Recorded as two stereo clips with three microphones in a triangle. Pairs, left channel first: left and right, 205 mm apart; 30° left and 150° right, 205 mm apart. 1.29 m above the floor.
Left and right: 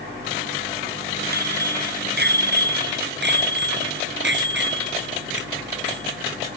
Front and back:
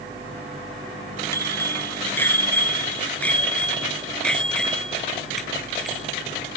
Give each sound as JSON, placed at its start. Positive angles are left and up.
{"t": 1.3, "sound": "a bicycle bell", "azimuth_deg": -50}